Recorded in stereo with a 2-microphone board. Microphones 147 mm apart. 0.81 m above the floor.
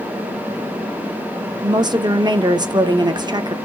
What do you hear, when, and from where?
1.6 s a woman speaking: 30° right (ahead or behind), 0.8 m